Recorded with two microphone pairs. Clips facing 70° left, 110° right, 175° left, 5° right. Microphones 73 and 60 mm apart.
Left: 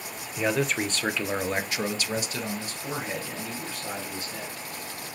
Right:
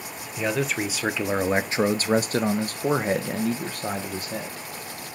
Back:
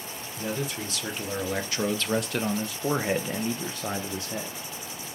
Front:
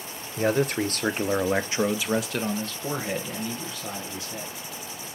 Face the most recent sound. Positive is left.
turn(degrees=-150)